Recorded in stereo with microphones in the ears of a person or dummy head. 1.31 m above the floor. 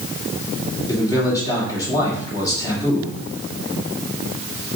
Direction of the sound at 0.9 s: 15° left (ahead or behind).